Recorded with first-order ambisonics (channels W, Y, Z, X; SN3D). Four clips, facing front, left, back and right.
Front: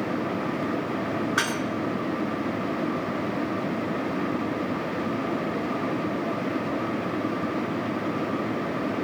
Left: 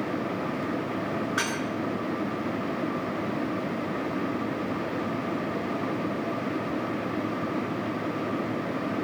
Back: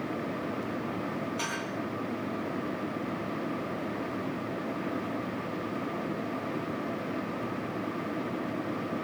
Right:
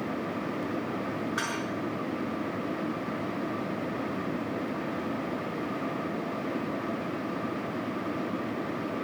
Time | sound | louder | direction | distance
1.4 | dishes clattering | left 4 dB, front 10 dB | 10° left | 5 m